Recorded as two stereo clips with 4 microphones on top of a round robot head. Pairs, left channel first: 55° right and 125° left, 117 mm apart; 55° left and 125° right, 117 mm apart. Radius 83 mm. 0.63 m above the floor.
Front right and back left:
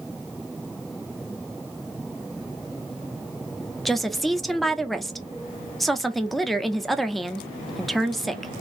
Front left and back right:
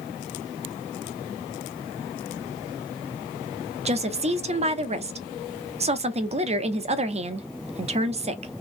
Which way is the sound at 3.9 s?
140° right.